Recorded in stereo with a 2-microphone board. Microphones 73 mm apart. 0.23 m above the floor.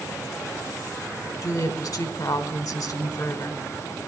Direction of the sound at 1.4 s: 55° left (ahead or behind).